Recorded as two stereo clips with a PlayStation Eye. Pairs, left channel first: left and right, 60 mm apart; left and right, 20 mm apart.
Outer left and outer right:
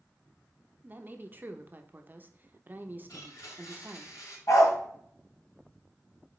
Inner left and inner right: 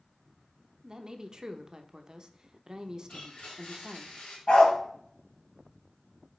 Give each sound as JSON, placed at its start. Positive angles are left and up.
{"t": 0.8, "sound": "a woman speaking", "side_deg": -30, "distance_m": 0.8}
{"t": 3.1, "sound": "a blender", "side_deg": 80, "distance_m": 4.0}
{"t": 4.5, "sound": "a dog barking", "side_deg": 65, "distance_m": 3.0}